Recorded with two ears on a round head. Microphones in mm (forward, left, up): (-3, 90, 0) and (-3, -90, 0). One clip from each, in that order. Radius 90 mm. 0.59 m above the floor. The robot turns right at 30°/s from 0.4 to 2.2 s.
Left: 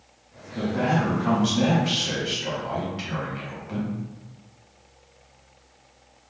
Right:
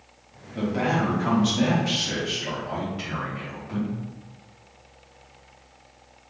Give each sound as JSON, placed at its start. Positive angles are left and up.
{"t": 0.6, "sound": "a man speaking", "azimuth_deg": -25, "distance_m": 0.9}